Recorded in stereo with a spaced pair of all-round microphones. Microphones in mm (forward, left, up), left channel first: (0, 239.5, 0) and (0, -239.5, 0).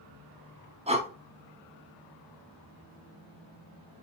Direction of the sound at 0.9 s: 15° right (ahead or behind).